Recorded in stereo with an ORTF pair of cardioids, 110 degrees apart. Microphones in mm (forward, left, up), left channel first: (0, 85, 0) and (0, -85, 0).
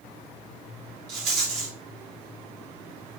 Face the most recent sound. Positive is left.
turn(degrees=-70)